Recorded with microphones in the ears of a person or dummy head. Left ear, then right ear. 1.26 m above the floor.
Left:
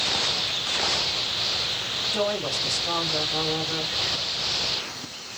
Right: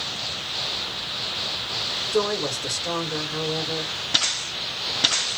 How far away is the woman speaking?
About 1.6 m.